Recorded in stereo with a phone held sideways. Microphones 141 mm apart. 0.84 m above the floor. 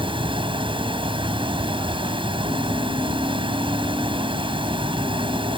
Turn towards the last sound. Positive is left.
turn(degrees=-35)  # may be behind; listen again after turning